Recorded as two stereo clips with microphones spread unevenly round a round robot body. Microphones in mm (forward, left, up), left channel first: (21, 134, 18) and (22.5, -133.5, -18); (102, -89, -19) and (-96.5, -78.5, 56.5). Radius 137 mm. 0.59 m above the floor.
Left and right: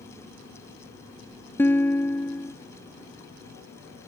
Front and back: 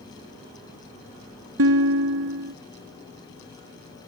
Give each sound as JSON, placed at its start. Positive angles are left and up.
{"t": 1.6, "sound": "a guitar", "azimuth_deg": 170}